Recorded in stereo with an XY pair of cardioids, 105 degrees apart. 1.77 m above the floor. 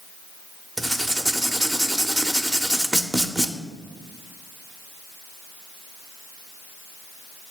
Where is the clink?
I don't hear a clink.